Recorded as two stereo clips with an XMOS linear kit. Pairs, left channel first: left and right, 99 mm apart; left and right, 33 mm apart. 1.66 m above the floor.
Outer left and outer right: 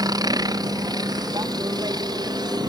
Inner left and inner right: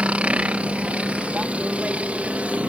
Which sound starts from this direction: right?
A helicopter, at 0.0 s.